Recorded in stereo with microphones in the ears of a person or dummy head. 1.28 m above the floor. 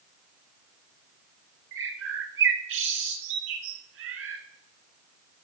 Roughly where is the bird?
Right.